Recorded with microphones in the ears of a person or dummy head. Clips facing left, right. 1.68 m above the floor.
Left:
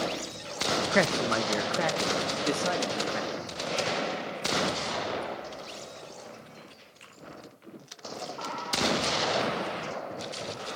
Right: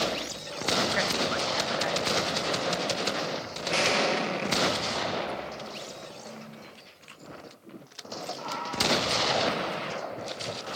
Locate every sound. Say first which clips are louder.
0.9 s a man speaking: left 3 dB; 60° left (ahead or behind), 1.1 m; by 3.5 s 55° left (ahead or behind), 3 m
3.7 s an explosion: right 4 dB; 75° right (ahead or behind), 2 m